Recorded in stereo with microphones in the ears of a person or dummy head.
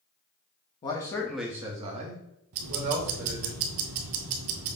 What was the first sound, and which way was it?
A man speaking, 25° left (ahead or behind).